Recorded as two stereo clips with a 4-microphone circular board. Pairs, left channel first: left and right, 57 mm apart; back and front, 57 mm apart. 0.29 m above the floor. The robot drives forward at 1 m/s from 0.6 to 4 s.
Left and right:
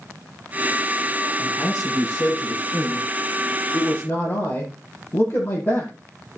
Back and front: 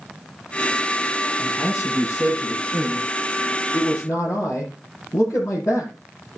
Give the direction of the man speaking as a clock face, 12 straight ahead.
7 o'clock.